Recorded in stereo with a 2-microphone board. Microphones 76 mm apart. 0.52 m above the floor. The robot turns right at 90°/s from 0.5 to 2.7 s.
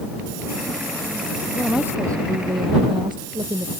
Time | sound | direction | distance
1.5 | a woman speaking | 175° left | ?